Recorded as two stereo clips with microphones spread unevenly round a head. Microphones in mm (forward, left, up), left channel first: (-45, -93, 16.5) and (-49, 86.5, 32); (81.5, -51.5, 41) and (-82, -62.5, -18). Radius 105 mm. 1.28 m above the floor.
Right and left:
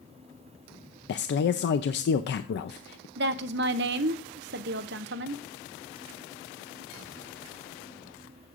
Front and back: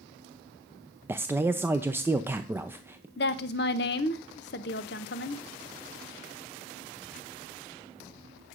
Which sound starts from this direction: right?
A man speaking, at 1.1 s.